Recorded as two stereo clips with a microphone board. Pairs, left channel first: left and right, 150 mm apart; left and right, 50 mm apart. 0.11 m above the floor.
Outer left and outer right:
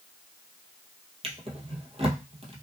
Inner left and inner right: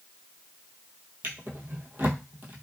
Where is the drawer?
45° right (ahead or behind), 0.8 m.